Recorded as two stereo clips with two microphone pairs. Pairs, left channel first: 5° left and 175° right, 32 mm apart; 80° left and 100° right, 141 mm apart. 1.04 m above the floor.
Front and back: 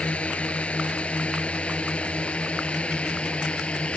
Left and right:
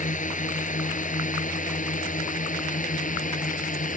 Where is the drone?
55° left; by 4.0 s 60° left.